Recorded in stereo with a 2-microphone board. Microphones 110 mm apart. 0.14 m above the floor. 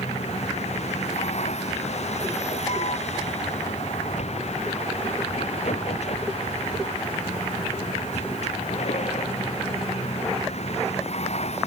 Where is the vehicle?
90° left; by 11.7 s 75° left (ahead or behind).